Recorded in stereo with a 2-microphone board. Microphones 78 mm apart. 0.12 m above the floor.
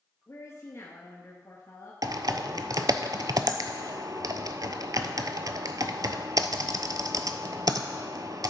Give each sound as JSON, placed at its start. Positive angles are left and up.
{"t": 0.3, "sound": "a woman speaking", "side_deg": 40, "distance_m": 1.9}
{"t": 2.0, "sound": "typing on a keyboard", "side_deg": -60, "distance_m": 0.6}